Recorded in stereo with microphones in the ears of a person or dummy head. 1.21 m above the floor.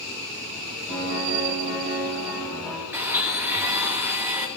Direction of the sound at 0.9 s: 30° right (ahead or behind).